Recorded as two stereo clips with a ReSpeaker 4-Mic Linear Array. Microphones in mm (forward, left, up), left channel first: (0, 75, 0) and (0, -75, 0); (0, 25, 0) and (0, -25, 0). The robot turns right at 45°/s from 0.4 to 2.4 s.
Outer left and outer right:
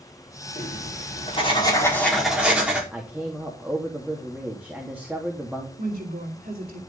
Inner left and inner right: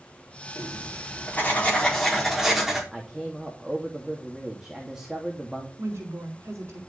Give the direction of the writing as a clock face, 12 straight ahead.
9 o'clock.